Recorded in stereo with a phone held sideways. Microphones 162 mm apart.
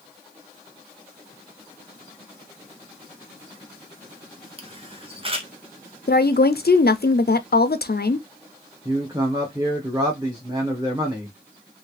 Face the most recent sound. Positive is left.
turn(degrees=-20)  # may be behind; listen again after turning